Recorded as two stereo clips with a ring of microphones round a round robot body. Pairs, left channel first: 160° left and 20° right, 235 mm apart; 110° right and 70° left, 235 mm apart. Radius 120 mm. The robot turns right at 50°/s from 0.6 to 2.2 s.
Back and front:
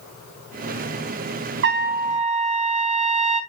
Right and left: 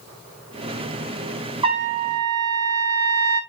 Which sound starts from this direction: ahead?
A trumpet, at 1.6 s.